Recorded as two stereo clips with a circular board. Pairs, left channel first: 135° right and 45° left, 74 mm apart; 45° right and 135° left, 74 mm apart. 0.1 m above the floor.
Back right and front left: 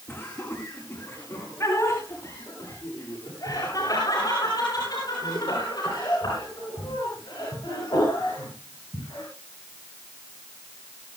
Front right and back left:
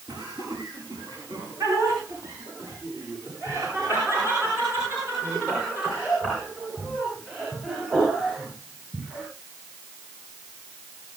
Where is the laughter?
165° left, 9.5 m; by 9.2 s 145° right, 15 m.